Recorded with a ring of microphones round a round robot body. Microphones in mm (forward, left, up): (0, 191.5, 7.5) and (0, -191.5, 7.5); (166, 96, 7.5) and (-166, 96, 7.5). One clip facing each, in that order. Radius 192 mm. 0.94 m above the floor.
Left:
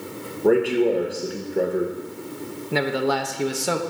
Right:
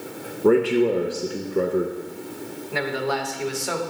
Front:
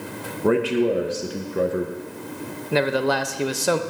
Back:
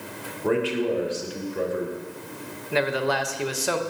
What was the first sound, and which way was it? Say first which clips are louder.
A man speaking: right 1 dB, front 4 dB; 15° right.